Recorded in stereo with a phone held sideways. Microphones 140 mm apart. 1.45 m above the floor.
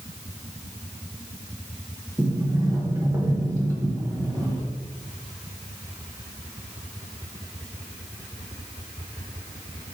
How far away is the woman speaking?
I don't hear a woman speaking.